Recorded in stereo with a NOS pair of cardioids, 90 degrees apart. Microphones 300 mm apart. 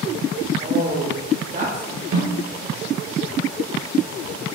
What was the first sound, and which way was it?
A woman speaking, 30° right.